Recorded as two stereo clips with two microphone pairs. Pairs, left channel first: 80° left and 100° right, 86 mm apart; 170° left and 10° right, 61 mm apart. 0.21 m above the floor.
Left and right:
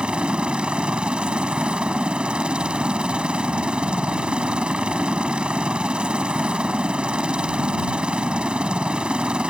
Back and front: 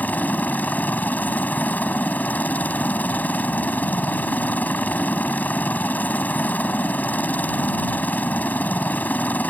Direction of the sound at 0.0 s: 165° right.